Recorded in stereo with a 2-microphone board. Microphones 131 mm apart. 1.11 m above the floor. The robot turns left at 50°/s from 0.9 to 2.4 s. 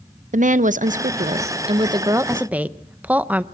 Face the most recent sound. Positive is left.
turn(degrees=-165)